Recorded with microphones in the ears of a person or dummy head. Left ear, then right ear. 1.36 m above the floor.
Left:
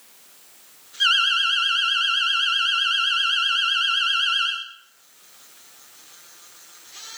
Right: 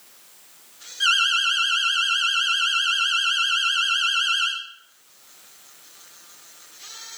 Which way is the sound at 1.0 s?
15° left (ahead or behind).